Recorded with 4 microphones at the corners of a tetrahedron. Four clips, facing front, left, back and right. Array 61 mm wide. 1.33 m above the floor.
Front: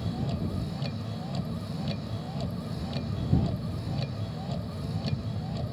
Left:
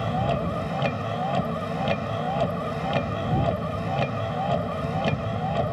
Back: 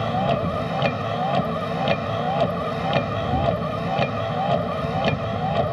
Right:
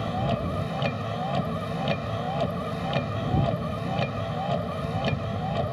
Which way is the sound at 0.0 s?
170° left.